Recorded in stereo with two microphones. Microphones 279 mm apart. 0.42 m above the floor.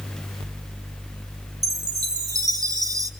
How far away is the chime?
About 2.0 m.